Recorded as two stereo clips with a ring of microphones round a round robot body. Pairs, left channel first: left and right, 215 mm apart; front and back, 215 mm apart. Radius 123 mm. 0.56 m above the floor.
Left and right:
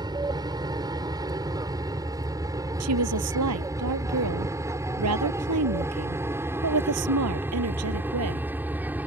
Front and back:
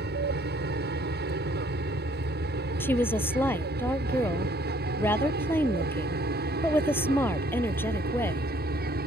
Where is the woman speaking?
80° right.